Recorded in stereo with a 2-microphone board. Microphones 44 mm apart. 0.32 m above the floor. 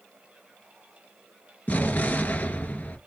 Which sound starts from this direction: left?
An explosion, at 1.7 s.